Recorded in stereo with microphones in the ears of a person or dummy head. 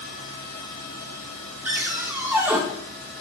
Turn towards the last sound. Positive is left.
turn(degrees=-15)  # may be behind; listen again after turning